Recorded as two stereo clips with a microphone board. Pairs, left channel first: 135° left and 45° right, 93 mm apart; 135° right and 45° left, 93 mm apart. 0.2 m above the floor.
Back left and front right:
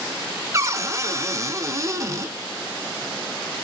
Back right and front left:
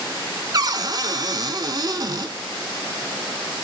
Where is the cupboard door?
5° left, 0.6 m.